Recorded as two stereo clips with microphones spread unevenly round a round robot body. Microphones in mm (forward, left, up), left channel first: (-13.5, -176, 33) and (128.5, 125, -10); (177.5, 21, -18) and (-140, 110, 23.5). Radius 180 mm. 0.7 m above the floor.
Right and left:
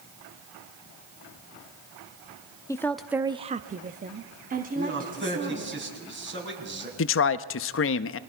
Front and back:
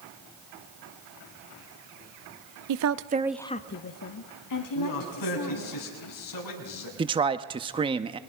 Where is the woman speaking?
160° left, 0.8 m; by 5.8 s straight ahead, 2.5 m.